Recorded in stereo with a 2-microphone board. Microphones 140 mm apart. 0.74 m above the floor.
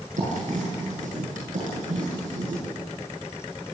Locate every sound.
0.2 s writing: 60° right (ahead or behind), 7.5 m